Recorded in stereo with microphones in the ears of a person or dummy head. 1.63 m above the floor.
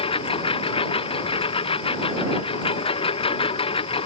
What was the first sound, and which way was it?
A lawn mower, 20° left (ahead or behind).